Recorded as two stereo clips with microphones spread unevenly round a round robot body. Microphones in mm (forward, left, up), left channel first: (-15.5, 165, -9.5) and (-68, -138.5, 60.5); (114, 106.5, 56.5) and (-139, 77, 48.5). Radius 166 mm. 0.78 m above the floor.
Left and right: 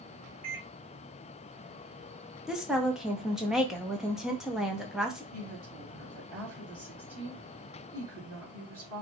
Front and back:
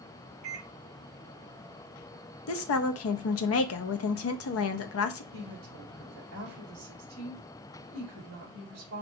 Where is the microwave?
140° right, 2.5 m.